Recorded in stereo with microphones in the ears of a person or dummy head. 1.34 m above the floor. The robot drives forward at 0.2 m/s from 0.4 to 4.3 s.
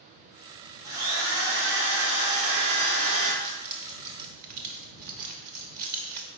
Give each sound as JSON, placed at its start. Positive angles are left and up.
{"t": 0.8, "sound": "a drill", "side_deg": -60, "distance_m": 2.0}
{"t": 3.4, "sound": "keys jangling", "side_deg": -40, "distance_m": 0.6}